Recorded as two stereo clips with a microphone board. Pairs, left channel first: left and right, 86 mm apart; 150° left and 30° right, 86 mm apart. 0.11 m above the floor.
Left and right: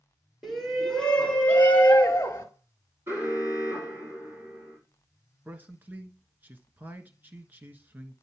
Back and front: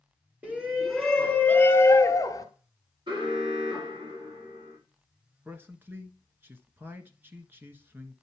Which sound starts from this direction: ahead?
A shout, at 0.4 s.